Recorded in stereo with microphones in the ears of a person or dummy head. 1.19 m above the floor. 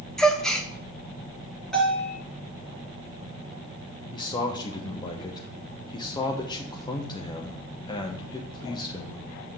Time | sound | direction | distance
0.2 | a gasp | 5° left (ahead or behind) | 0.6 m
1.7 | a bell | 10° left (ahead or behind) | 3.5 m
4.1 | a man speaking | 30° left (ahead or behind) | 0.8 m